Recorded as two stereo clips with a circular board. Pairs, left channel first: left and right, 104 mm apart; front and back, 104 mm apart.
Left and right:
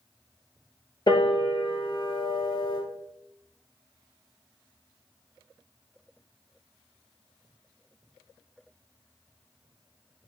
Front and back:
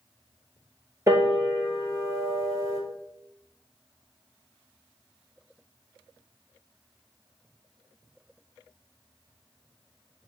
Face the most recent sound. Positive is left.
turn(degrees=125)